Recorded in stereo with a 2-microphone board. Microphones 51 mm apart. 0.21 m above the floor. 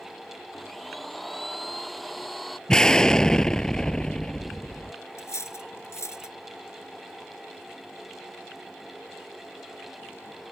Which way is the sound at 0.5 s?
5° left (ahead or behind).